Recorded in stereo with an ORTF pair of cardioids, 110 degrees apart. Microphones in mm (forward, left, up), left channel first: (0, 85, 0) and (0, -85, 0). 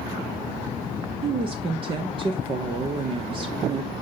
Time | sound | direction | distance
1.2 | a woman speaking | 30° right | 1.0 m